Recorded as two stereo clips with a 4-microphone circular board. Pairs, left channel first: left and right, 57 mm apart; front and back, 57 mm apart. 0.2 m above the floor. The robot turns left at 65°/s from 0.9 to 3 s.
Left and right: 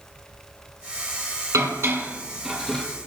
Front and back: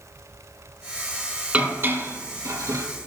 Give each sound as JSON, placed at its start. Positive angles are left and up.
{"t": 1.5, "sound": "dishes clattering", "azimuth_deg": -110, "distance_m": 3.5}